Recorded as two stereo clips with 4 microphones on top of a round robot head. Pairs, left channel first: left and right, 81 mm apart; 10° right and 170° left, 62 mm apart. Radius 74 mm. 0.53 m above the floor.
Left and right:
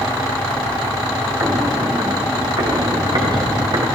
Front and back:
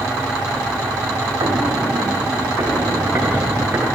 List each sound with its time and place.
1.4 s footsteps: 145° right, 1.7 m; by 3.9 s 120° right, 3 m